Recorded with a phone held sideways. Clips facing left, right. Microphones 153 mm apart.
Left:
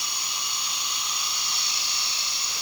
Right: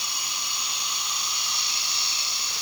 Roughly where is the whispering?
No whispering in this recording.